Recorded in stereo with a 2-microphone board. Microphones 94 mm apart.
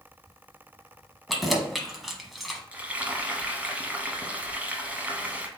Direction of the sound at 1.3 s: Centre (ahead or behind).